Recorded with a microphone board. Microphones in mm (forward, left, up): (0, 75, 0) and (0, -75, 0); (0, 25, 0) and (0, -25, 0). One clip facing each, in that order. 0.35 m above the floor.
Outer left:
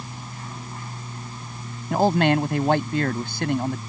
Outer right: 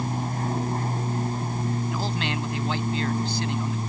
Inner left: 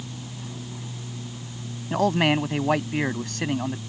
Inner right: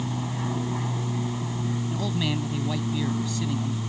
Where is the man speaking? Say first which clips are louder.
Outer left 10 dB, inner left 11 dB; 60° left (ahead or behind).